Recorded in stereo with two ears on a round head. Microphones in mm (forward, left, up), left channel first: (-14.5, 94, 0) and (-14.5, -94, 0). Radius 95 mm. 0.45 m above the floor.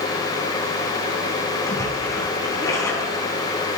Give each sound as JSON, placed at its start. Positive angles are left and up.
{"t": 1.7, "sound": "a splash", "side_deg": 15, "distance_m": 4.0}